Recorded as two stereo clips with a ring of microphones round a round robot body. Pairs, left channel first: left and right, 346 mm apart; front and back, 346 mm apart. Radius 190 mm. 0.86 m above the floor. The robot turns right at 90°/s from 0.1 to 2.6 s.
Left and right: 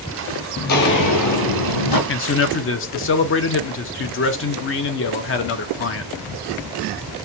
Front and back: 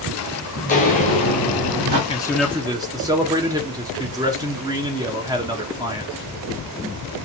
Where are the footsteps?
55° left, 1.0 m; by 2.0 s 120° left, 1.6 m.